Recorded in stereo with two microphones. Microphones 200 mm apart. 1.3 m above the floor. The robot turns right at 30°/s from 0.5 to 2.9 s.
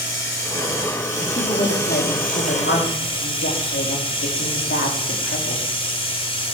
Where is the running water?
80° left, 3 m; by 6.5 s 150° left, 3 m.